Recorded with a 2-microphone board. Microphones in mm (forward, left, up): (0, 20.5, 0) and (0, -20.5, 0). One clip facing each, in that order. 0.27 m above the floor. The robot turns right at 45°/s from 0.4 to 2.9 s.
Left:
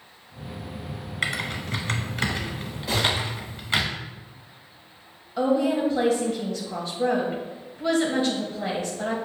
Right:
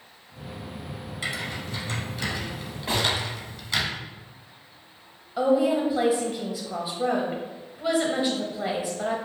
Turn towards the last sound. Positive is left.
turn(degrees=-10)  # may be behind; listen again after turning